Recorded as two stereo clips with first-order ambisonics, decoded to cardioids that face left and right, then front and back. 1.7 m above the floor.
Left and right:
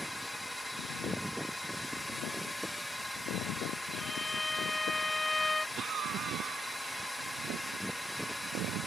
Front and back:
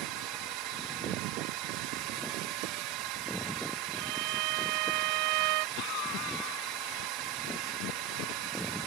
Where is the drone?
175° left.